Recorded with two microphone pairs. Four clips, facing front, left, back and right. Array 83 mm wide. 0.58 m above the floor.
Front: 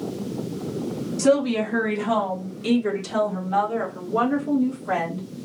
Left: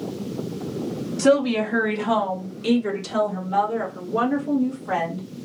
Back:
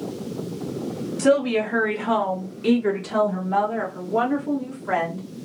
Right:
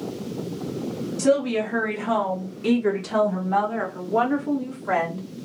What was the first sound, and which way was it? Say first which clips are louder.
A woman speaking: left 2 dB, back 1 dB; 125° left.